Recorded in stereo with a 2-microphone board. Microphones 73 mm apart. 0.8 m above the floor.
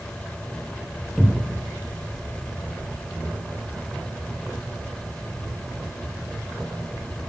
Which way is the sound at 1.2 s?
10° left (ahead or behind).